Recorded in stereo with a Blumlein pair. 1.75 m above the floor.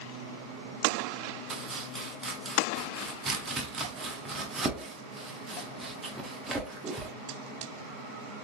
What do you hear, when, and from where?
1.5 s chopping: 15° right, 0.7 m